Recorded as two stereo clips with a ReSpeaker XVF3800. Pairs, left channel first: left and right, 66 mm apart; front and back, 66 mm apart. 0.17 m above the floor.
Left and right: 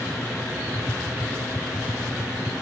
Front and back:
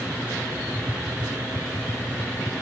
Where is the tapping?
5° left.